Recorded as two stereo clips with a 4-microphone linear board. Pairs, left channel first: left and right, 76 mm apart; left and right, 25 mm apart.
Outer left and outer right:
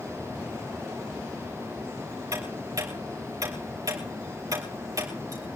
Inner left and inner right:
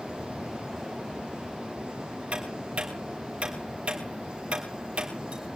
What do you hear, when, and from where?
2.3 s ticking: 50° right (ahead or behind), 3.5 m